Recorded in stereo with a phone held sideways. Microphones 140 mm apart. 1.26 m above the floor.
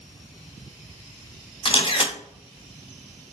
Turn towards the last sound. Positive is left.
turn(degrees=35)  # may be behind; listen again after turning